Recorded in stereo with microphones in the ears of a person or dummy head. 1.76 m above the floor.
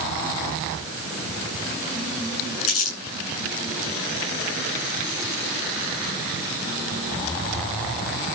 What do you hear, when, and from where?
2.6 s crumpling: 75° left (ahead or behind), 7.5 m